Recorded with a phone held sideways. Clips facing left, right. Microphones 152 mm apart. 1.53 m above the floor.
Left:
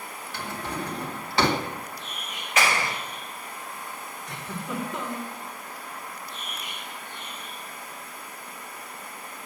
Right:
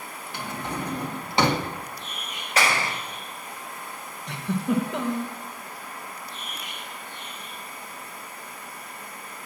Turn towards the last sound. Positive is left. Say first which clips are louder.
# right 9 dB
turn(degrees=-70)  # may be behind; listen again after turning